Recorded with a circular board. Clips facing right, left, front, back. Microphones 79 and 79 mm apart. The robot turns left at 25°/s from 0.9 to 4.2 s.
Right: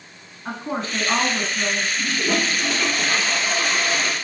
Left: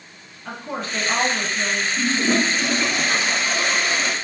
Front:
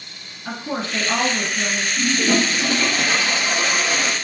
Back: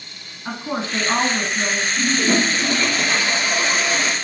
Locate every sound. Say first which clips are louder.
0.5 s a woman speaking: right 2 dB, back 1 dB; 135° right, 1.6 m; by 1.9 s 155° right, 1.6 m
2.0 s a toilet flushing: left 6 dB, even; 80° left, 2.5 m; by 4.1 s 25° left, 2.5 m